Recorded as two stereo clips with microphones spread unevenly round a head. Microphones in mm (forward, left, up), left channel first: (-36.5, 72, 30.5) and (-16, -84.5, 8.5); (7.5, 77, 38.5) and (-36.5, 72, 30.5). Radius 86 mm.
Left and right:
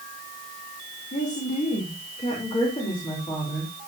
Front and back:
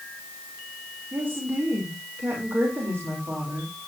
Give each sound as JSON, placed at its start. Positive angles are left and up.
{"t": 1.1, "sound": "a woman speaking", "azimuth_deg": 140, "distance_m": 3.0}